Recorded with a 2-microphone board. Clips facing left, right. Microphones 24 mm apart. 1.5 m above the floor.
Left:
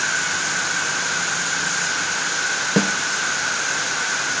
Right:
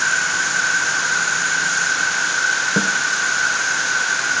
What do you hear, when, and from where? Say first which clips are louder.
0.0 s an insect: right 3 dB; 50° right (ahead or behind), 2.5 m
2.8 s a snare drum: left 2 dB; 30° left (ahead or behind), 0.8 m